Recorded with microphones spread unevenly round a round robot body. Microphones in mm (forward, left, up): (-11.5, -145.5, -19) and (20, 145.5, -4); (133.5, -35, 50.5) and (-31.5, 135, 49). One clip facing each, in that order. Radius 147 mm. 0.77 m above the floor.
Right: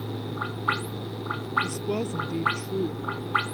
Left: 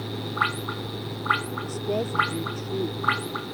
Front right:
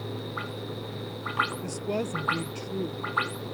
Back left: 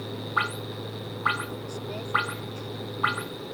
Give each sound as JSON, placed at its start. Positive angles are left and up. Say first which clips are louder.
{"t": 1.6, "sound": "a woman speaking", "louder": "left 1 dB, front right 5 dB", "azimuth_deg": -25}